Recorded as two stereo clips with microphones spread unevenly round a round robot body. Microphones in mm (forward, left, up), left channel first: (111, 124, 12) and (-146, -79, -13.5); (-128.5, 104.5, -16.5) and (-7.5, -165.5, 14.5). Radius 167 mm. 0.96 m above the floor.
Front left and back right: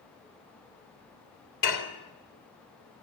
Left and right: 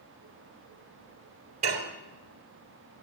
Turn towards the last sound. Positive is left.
turn(degrees=5)